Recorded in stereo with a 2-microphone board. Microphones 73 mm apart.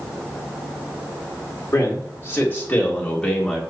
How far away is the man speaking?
About 2.0 m.